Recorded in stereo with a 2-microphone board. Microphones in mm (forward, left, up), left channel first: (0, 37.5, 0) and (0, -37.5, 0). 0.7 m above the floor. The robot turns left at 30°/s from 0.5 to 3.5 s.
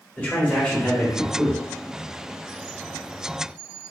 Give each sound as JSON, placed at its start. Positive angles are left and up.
{"t": 0.2, "sound": "a man speaking", "side_deg": 20, "distance_m": 1.1}